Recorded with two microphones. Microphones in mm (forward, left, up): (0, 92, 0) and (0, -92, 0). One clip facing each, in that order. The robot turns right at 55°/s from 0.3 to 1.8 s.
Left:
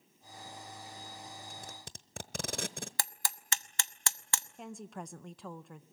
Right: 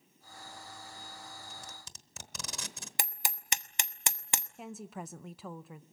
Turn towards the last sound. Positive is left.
turn(degrees=-5)  # may be behind; listen again after turning